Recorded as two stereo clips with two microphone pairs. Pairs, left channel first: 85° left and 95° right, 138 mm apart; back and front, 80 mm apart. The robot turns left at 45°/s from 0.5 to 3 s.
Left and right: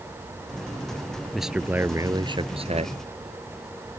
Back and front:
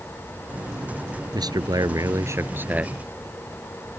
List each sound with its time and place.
1.3 s a man speaking: straight ahead; by 3.0 s 75° right